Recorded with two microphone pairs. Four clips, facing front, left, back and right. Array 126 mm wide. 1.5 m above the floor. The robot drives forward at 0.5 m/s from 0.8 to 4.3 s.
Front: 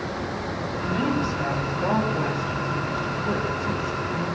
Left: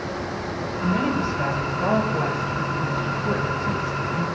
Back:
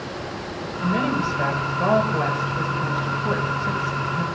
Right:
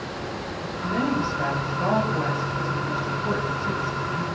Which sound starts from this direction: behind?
A woman speaking, at 0.8 s.